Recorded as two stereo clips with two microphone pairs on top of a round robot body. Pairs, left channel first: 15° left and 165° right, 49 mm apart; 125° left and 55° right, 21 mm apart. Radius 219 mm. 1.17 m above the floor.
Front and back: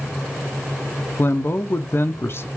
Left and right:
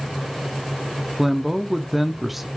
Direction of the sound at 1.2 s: 25° left.